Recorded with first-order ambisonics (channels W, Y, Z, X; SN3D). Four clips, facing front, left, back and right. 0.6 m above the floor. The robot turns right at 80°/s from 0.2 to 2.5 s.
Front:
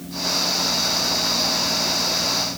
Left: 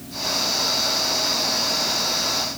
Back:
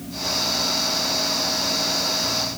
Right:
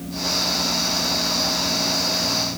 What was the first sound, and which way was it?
Only background noise.